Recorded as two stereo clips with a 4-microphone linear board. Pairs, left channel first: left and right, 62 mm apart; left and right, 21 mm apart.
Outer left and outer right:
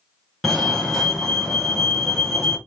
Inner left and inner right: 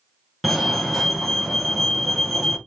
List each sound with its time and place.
0.4 s a fire alarm: centre (ahead or behind), 1.4 m